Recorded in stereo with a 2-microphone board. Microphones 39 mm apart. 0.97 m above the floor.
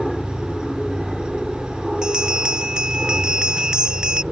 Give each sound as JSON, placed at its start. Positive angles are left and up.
{"t": 0.0, "sound": "an aircraft", "side_deg": 10}
{"t": 2.0, "sound": "a bell", "side_deg": -20}